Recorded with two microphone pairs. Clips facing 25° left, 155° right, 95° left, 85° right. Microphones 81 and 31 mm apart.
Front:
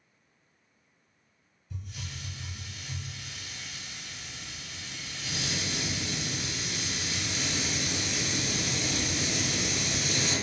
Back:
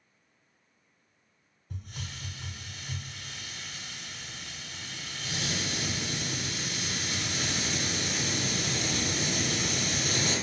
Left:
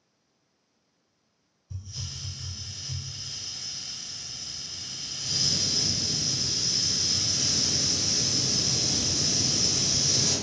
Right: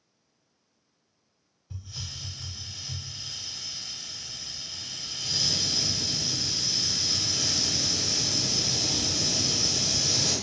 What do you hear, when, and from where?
1.7 s a hiss: 125° right, 0.8 m